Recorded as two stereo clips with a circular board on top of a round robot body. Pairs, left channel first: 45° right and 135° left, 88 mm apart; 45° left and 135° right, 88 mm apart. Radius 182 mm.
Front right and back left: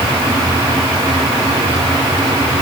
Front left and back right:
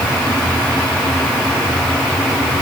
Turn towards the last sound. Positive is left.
No sound to turn to.